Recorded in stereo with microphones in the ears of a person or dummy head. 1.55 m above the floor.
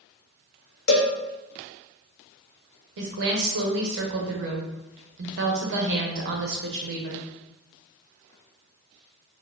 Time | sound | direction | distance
0.9 | a cowbell | 60° left (ahead or behind) | 0.9 m
3.0 | a woman speaking | 65° right (ahead or behind) | 1.0 m